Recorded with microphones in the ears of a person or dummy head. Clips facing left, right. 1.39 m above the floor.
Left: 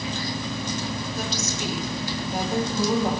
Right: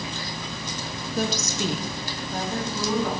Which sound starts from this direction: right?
A woman speaking, at 1.2 s.